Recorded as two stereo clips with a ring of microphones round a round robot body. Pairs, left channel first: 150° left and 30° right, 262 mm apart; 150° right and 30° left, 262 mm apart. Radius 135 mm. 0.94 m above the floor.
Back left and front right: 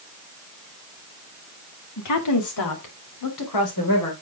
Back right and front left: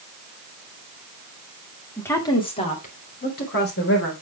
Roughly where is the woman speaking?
Behind left.